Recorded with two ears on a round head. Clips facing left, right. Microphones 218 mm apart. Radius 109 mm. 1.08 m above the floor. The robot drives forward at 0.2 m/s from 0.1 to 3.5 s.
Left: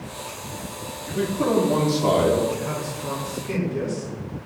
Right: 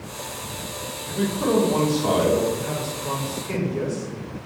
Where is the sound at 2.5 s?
50° left (ahead or behind), 1.4 m; by 4.1 s 45° left (ahead or behind), 1.5 m.